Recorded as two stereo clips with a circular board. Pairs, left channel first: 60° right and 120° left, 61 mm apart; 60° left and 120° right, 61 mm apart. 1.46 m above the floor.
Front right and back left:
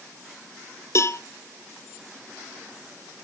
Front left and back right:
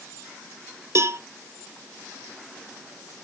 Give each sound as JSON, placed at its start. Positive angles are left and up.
{"t": 0.9, "sound": "a cowbell", "azimuth_deg": -90, "distance_m": 0.5}